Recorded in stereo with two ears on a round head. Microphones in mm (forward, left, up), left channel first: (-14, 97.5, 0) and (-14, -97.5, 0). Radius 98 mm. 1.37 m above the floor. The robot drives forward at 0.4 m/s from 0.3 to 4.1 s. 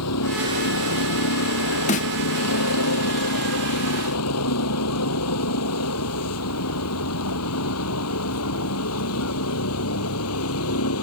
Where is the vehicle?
80° left.